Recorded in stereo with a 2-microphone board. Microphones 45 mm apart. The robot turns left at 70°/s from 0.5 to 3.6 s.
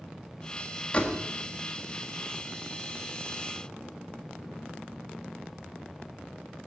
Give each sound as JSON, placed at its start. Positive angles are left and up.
{"t": 0.9, "sound": "a door slam", "side_deg": 30, "distance_m": 1.5}